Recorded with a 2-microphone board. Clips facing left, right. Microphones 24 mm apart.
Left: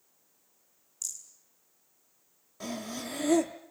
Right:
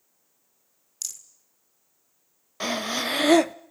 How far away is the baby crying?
No baby crying in this recording.